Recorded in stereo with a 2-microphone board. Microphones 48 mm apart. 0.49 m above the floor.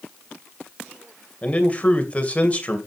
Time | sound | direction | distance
1.4 | a man speaking | 25° left (ahead or behind) | 2.5 m